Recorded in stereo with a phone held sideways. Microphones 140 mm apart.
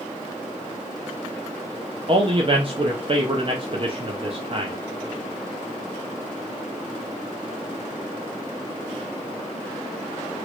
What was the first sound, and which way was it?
A man speaking, 40° right (ahead or behind).